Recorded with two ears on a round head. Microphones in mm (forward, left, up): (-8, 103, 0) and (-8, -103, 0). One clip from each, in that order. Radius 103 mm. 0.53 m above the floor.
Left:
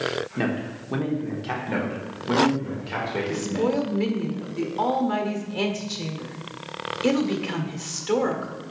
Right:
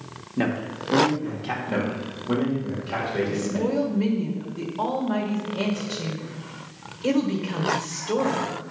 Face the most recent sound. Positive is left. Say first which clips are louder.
# left 1 dB
turn(degrees=50)  # may be behind; listen again after turning